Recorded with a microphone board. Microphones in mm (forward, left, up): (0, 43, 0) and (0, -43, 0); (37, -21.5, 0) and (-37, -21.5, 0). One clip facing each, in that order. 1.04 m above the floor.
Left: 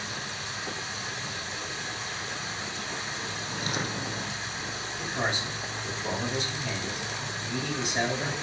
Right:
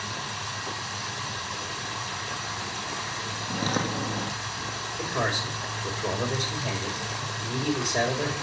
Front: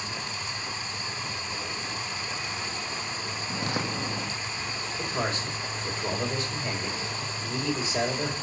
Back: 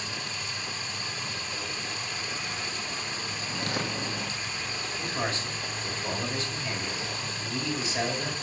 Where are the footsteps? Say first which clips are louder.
Right 6 dB, front 1 dB; 65° right, 1.6 m.